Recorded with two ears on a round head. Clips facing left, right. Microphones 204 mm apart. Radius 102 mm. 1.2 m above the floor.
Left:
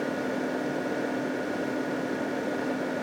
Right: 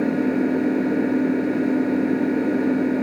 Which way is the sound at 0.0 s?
55° right (ahead or behind).